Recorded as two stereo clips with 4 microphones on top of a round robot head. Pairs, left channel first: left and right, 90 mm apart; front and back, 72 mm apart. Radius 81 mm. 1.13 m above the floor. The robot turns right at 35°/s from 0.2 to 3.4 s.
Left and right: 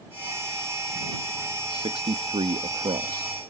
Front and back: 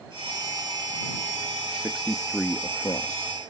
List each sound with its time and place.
1.7 s a man speaking: 105° right; by 3.3 s 45° right